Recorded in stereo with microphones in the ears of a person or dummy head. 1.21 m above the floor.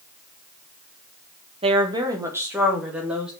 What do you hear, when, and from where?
1.6 s a woman speaking: 40° right (ahead or behind), 1.4 m; by 3.3 s 10° right (ahead or behind), 3.5 m